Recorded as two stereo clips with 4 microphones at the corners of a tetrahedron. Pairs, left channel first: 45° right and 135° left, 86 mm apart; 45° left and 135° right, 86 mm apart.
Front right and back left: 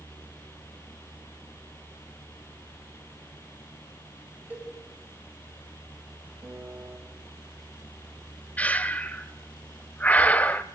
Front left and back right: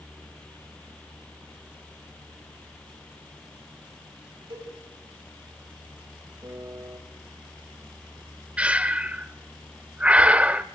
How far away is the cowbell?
About 4.5 m.